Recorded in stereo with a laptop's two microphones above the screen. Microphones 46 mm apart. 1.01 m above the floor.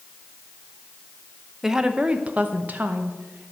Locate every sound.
1.6 s a woman speaking: 10° right (ahead or behind), 0.8 m; by 3.5 s 50° right (ahead or behind), 1.6 m